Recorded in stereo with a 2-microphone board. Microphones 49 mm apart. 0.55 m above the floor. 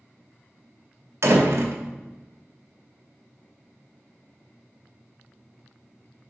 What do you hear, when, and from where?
1.2 s a door slam: 65° right (ahead or behind), 2 m